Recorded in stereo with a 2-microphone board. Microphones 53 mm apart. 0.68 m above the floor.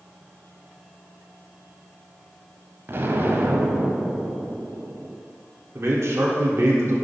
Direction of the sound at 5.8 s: 55° right (ahead or behind).